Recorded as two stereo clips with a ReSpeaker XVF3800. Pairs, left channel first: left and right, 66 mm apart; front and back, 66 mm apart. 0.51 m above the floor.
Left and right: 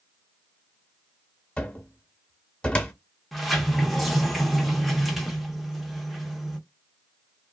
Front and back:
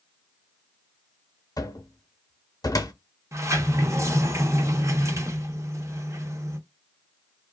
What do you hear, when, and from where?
1.6 s a cupboard door: 15° left, 0.6 m
3.3 s a sliding door: straight behind, 0.7 m